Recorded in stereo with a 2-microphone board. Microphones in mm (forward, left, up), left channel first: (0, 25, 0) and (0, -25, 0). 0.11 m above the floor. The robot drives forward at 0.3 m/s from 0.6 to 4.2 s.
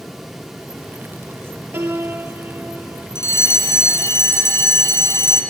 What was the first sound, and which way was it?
A piano, 55° right (ahead or behind).